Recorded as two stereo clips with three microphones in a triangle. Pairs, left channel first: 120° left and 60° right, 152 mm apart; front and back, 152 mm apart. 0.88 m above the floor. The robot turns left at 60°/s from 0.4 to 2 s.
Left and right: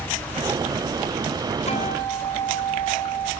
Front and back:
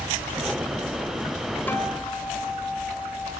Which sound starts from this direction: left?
A guitar, at 1.7 s.